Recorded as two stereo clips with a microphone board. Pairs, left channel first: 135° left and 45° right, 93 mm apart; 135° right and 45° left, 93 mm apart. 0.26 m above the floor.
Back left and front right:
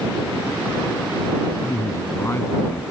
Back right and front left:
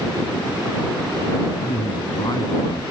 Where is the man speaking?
165° right; by 2.8 s 170° right.